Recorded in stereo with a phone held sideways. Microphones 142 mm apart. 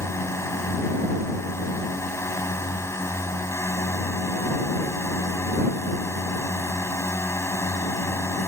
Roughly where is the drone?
Centre.